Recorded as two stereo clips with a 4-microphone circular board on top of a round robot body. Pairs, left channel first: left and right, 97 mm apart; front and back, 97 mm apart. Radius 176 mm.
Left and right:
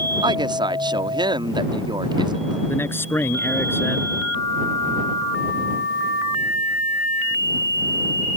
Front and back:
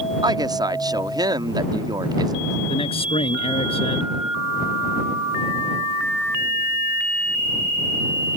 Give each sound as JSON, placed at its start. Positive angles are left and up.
{"t": 0.2, "sound": "a woman speaking", "azimuth_deg": -130}
{"t": 2.7, "sound": "a man speaking", "azimuth_deg": 20}